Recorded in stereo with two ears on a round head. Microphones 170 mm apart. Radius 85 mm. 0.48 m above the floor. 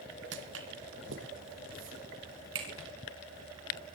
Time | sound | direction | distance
0.3 | footsteps | 70° right (ahead or behind) | 1.7 m